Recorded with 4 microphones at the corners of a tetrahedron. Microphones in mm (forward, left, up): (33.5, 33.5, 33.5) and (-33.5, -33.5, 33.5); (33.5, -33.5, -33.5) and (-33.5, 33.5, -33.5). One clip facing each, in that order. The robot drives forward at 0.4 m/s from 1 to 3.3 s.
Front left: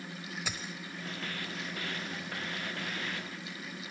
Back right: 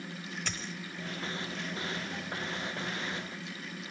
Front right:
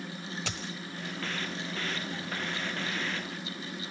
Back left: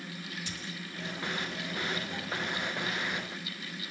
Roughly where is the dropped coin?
Ahead right.